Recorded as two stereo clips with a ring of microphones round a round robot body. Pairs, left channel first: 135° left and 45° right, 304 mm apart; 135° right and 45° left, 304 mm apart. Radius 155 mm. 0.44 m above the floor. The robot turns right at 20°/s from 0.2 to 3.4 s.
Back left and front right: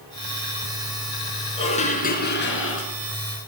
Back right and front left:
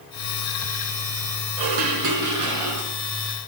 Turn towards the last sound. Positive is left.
turn(degrees=100)